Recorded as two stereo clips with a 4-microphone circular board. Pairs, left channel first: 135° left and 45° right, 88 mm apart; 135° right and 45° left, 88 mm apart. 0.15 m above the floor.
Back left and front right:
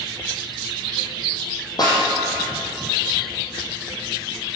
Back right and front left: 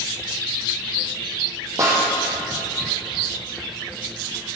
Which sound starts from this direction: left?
A snare drum, at 1.8 s.